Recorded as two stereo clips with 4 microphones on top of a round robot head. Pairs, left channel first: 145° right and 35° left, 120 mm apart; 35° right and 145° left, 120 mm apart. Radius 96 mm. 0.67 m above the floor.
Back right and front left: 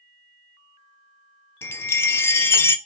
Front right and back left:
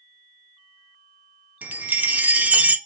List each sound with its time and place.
1.6 s a chime: 165° right, 0.7 m